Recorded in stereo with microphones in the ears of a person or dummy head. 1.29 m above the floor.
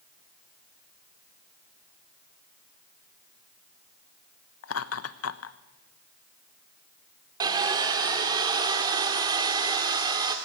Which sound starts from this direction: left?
Laughter, at 4.6 s.